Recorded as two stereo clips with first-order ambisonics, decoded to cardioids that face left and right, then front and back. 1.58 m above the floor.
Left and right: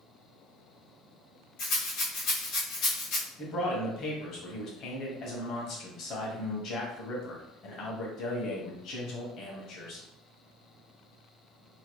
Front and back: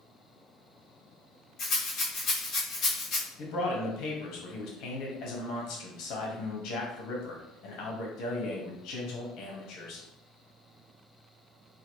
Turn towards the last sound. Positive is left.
turn(degrees=40)